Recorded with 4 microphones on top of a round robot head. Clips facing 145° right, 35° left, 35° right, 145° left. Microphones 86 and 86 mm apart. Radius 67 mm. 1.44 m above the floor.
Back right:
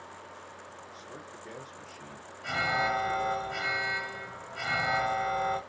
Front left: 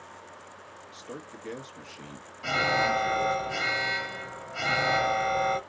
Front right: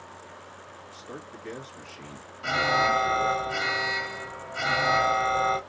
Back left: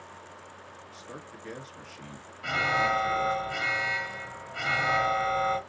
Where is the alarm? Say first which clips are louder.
Front left 3 dB, front right 3 dB; 30° left, 1.0 m.